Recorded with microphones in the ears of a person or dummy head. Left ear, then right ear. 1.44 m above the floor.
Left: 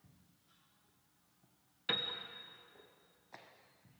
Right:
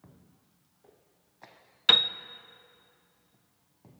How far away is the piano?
About 0.8 m.